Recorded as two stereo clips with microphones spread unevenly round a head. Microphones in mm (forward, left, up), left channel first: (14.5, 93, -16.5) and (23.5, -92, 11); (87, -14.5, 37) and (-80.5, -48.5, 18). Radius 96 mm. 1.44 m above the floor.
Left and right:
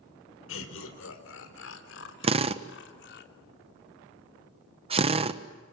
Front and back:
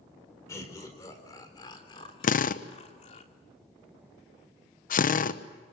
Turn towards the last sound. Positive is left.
turn(degrees=-25)